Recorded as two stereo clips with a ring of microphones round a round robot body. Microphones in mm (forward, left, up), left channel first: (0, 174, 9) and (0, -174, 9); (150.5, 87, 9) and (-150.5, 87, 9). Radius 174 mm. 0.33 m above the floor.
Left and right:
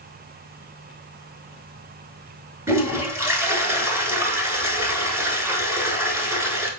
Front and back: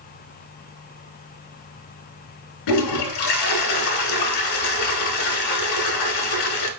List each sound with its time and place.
2.7 s a toilet flushing: 5° right, 1.0 m